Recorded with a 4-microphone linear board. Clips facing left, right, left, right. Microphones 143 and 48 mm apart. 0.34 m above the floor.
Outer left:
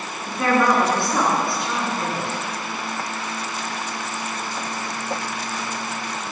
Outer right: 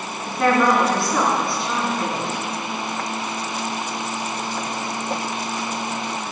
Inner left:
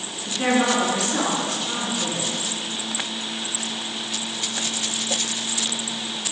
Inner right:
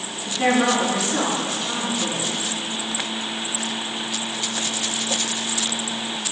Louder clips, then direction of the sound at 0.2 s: Outer right 1 dB, inner right 1 dB; centre (ahead or behind).